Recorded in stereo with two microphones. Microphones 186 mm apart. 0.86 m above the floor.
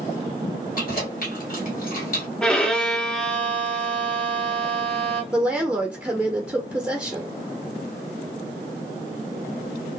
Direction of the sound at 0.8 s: 50° left (ahead or behind).